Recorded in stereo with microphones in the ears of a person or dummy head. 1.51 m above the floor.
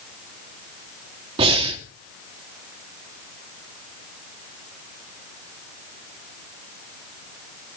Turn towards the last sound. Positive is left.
turn(degrees=-35)  # may be behind; listen again after turning